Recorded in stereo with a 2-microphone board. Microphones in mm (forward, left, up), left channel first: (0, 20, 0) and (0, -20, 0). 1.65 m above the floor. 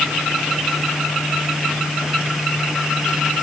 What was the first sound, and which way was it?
Only background noise.